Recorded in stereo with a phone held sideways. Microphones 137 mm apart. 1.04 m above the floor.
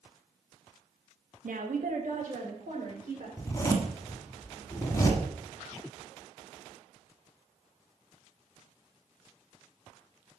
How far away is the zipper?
About 1.5 m.